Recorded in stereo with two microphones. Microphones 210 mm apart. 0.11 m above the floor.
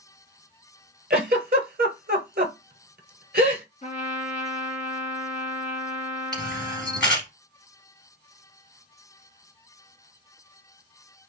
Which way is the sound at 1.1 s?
50° right (ahead or behind).